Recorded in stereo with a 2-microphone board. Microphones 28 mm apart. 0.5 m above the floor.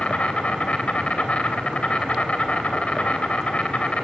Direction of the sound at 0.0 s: 45° left (ahead or behind).